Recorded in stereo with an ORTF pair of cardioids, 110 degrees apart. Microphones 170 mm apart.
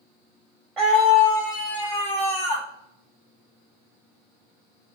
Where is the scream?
Straight ahead, 0.8 m; by 2.7 s 45° left, 1.5 m.